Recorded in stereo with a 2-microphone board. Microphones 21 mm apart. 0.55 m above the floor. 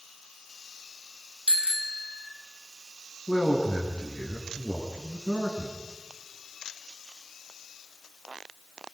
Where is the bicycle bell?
75° right (ahead or behind), 2.5 m.